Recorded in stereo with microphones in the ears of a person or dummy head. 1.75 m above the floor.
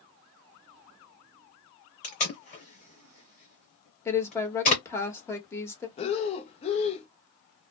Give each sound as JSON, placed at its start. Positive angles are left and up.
{"t": 2.0, "sound": "tape being pulled", "side_deg": 35, "distance_m": 0.9}
{"t": 4.0, "sound": "a woman speaking", "side_deg": 15, "distance_m": 1.0}
{"t": 6.0, "sound": "breathing", "side_deg": 35, "distance_m": 0.6}